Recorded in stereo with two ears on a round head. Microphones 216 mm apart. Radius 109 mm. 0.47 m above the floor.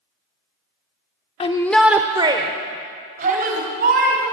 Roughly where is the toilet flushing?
I don't hear a toilet flushing.